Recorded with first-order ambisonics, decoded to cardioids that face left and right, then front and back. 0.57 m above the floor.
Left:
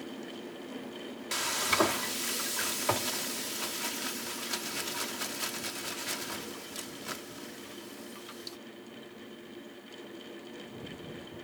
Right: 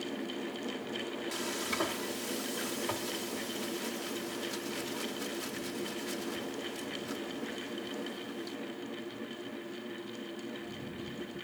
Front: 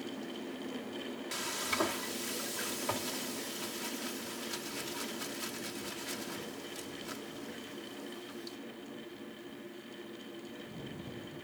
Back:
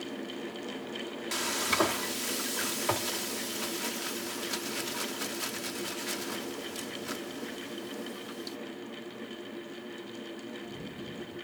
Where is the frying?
130° left.